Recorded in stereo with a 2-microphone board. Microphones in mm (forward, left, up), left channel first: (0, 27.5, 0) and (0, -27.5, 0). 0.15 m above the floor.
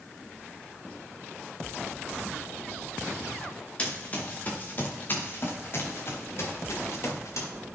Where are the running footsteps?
25° left (ahead or behind), 3 m; by 7.5 s 65° left (ahead or behind), 3.5 m.